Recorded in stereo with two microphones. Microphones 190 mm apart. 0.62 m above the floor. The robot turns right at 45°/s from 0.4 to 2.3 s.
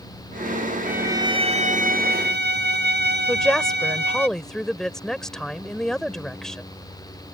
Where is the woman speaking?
5° left (ahead or behind).